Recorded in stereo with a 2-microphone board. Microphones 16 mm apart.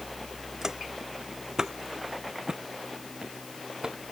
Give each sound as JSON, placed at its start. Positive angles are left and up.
{"t": 0.6, "sound": "footsteps", "side_deg": -40}